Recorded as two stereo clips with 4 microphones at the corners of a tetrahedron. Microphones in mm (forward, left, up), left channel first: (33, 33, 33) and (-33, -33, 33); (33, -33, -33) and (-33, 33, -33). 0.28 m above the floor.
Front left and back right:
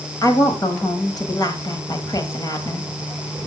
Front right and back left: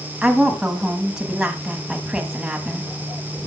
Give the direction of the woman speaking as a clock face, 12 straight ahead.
10 o'clock.